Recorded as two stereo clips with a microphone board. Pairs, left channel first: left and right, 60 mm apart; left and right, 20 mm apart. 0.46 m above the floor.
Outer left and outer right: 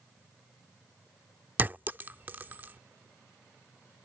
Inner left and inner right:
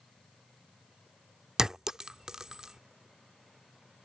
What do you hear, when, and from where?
1.6 s a clink: 30° right (ahead or behind)